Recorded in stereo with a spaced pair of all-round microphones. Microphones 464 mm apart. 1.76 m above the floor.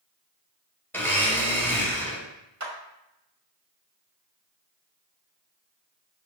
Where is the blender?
5° left (ahead or behind), 1.5 m.